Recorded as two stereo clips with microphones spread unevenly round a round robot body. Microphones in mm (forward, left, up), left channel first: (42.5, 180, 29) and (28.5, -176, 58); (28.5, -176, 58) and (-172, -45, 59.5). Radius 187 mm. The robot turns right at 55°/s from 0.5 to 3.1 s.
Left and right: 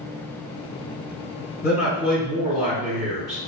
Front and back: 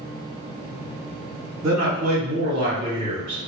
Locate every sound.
1.6 s a man speaking: 140° left, 1.7 m; by 3.4 s 135° right, 1.7 m